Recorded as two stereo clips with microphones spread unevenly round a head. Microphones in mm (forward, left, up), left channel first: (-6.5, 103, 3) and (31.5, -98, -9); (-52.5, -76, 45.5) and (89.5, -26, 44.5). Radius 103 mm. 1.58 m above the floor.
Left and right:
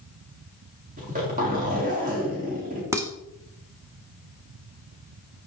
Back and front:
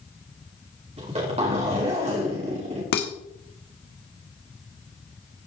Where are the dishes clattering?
155° right, 1.5 m.